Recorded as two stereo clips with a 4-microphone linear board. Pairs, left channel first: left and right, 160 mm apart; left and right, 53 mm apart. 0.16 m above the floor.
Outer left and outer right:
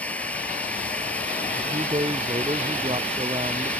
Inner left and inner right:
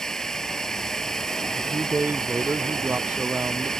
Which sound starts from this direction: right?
A man speaking, at 1.6 s.